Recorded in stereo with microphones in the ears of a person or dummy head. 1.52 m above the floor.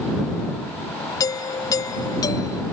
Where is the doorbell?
25° left (ahead or behind).